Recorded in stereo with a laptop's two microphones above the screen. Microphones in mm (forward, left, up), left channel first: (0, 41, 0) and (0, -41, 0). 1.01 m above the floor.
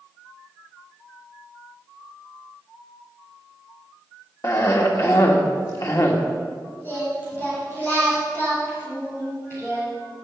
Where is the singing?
25° left (ahead or behind), 3 m.